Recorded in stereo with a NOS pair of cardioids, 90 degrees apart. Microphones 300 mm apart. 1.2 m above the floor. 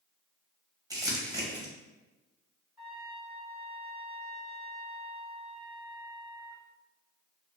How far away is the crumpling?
About 0.8 m.